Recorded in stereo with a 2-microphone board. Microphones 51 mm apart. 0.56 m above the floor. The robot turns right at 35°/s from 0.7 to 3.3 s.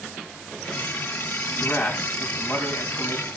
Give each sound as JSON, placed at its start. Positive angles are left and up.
{"t": 1.6, "sound": "a man speaking", "azimuth_deg": 40, "distance_m": 4.5}